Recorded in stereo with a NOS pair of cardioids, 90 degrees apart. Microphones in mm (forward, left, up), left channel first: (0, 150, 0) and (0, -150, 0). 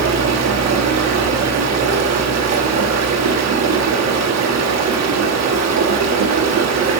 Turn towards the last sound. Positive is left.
turn(degrees=-60)